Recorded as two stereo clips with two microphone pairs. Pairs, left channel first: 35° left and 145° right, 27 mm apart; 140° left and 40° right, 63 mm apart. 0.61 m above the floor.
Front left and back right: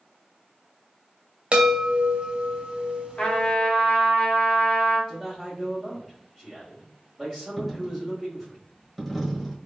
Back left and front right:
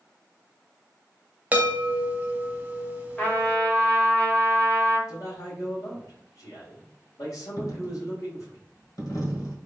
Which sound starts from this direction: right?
A chime, at 1.5 s.